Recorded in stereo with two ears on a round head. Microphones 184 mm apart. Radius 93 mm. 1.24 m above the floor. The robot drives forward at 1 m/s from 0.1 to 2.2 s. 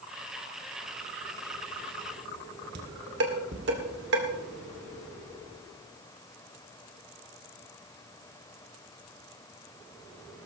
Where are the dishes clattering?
55° right (ahead or behind), 2 m.